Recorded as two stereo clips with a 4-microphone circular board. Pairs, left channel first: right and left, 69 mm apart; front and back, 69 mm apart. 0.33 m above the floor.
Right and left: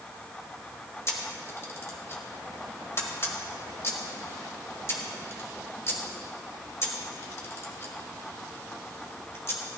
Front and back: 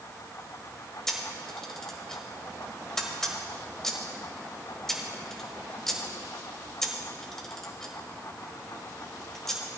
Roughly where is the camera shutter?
Right.